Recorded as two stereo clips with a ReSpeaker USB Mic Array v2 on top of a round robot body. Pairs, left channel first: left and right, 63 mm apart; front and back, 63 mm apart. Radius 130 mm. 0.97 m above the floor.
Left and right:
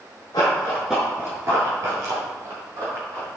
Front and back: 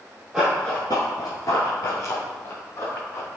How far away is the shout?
No shout in this recording.